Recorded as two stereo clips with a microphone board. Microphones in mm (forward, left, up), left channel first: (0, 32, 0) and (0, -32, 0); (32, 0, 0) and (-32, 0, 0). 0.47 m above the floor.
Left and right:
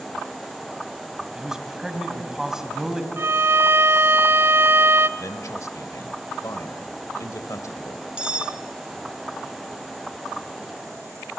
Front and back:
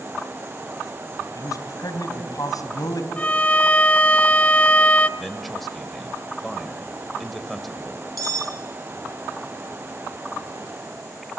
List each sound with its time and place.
1.4 s a man speaking: 10° right, 3 m
3.2 s a violin: 60° right, 0.7 m
5.2 s a man speaking: 90° left, 2 m
8.2 s cutlery clinking: 160° right, 1.4 m